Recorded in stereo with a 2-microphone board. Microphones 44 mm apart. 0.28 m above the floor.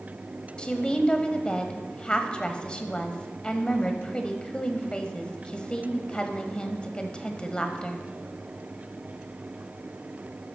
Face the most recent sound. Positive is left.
turn(degrees=20)  # may be behind; listen again after turning